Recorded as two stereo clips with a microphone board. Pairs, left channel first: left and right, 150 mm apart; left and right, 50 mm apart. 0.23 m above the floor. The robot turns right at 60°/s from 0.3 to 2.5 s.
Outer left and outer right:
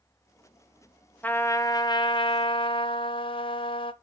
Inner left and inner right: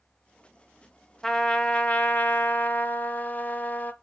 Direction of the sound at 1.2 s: 20° left.